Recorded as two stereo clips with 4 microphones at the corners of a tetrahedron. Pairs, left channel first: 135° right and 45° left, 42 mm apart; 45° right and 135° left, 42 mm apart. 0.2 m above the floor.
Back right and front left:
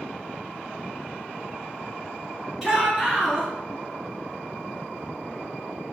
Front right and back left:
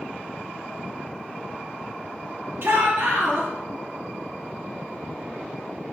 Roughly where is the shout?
Behind left.